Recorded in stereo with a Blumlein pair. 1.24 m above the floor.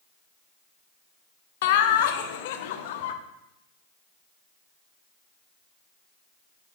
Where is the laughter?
55° left, 0.8 m.